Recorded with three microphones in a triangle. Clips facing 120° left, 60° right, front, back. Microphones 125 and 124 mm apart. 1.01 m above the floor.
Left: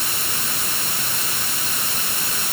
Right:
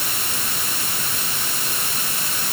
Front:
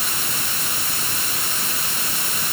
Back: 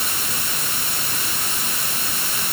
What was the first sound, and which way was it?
Only background noise.